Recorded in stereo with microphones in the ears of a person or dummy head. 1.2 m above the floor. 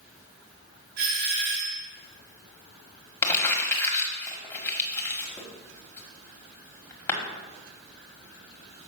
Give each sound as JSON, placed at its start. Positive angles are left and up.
{"t": 1.0, "sound": "a doorbell", "side_deg": -60, "distance_m": 3.0}
{"t": 3.2, "sound": "crumpling", "side_deg": 15, "distance_m": 1.6}